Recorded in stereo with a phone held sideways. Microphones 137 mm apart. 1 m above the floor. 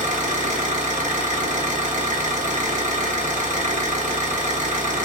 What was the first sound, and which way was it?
An engine running, 65° right (ahead or behind).